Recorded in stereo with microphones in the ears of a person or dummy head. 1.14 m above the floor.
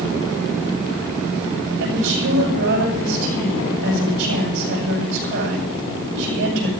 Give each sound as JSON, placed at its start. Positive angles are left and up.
{"t": 1.8, "sound": "a woman speaking", "side_deg": -75, "distance_m": 6.5}